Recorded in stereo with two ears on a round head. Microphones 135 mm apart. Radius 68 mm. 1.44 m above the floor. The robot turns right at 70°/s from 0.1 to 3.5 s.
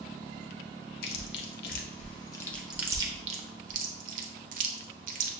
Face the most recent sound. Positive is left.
turn(degrees=-60)  # may be behind; listen again after turning